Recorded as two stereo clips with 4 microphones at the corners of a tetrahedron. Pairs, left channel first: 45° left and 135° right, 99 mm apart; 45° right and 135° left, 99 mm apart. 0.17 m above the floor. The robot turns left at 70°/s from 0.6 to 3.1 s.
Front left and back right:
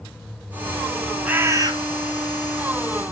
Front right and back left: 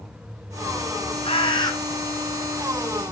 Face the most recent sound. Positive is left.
turn(degrees=170)